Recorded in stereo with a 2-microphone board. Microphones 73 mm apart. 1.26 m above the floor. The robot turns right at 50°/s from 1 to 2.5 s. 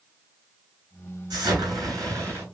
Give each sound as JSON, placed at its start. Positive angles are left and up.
{"t": 1.3, "sound": "an explosion", "azimuth_deg": -90, "distance_m": 3.0}